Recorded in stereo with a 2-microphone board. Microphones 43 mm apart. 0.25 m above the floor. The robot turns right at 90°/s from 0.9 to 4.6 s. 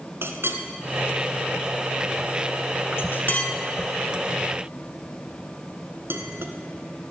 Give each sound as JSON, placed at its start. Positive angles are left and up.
{"t": 0.2, "sound": "a clink", "side_deg": -70, "distance_m": 1.6}